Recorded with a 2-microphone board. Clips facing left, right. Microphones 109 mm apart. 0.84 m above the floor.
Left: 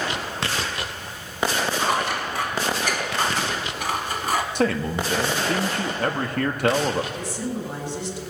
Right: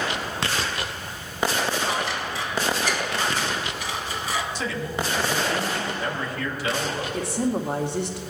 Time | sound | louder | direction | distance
1.8 | scissors | left 3 dB | 55° left (ahead or behind) | 1.3 m
4.5 | a man speaking | left 6 dB | 55° left (ahead or behind) | 1.3 m
7.1 | a woman speaking | right 4 dB | 60° right (ahead or behind) | 2 m